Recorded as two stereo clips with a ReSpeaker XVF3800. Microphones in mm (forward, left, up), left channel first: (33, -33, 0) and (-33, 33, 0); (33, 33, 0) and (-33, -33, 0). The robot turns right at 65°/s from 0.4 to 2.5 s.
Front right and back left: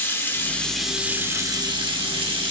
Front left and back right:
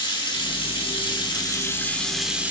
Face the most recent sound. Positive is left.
turn(degrees=155)